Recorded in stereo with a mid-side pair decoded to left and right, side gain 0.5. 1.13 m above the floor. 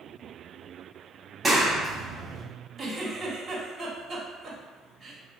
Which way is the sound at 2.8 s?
40° right.